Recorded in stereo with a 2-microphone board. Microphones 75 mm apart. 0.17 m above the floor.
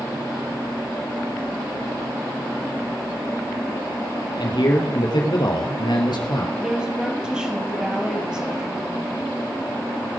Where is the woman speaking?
10° right (ahead or behind), 4 m.